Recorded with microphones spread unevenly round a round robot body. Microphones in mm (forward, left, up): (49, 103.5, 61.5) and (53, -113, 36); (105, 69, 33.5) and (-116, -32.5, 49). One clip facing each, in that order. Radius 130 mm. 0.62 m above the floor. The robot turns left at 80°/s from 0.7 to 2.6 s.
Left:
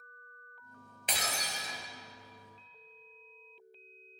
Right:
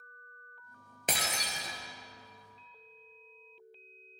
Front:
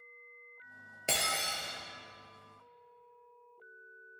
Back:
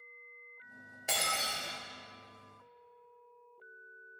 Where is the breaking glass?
40° right, 1.5 m; by 1.8 s 100° right, 1.5 m.